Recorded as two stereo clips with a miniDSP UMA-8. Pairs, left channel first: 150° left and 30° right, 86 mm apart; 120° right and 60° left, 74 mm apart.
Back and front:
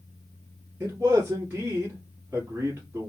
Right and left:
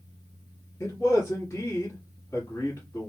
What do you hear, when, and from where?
0.8 s a man speaking: 90° right, 2 m